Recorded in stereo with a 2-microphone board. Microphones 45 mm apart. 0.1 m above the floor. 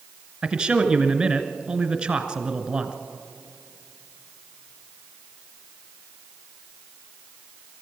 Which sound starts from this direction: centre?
A man speaking, at 0.4 s.